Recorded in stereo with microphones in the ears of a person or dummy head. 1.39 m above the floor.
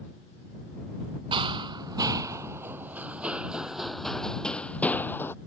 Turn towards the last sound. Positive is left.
turn(degrees=10)  # may be behind; listen again after turning